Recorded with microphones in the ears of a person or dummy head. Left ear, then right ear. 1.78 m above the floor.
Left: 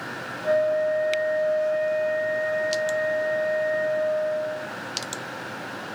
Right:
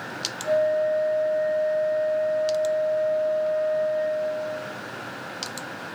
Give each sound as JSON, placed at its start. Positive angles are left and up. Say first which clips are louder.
{"t": 0.4, "sound": "a flute", "louder": "even", "side_deg": 40, "distance_m": 1.9}